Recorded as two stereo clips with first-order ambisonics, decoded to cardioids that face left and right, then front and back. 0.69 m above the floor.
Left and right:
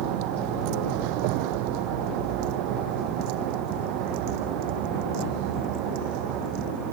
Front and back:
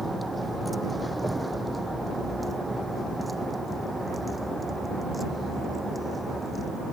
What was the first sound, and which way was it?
A vehicle, 95° right.